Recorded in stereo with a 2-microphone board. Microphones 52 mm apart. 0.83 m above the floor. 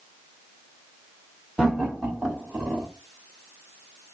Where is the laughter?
20° right (ahead or behind), 1.8 m.